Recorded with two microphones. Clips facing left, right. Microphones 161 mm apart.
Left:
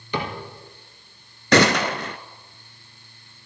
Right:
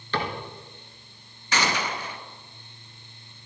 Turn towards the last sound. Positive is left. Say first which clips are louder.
# left 10 dB
turn(degrees=85)